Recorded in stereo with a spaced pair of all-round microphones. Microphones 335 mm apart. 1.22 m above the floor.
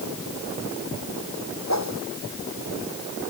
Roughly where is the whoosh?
Left.